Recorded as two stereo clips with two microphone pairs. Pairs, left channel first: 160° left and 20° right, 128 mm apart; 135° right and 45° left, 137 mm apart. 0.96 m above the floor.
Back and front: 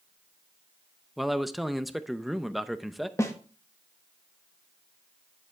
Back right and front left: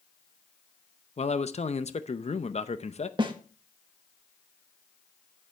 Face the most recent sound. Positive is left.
turn(degrees=95)